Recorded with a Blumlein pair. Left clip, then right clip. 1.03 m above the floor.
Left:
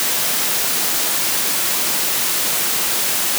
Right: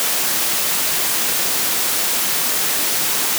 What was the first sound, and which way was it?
Only background noise.